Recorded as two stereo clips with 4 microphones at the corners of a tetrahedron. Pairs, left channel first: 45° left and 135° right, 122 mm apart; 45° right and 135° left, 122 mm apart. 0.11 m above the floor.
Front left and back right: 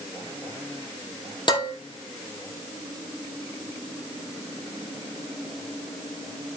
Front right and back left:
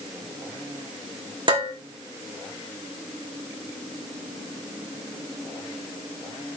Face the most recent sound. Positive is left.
turn(degrees=90)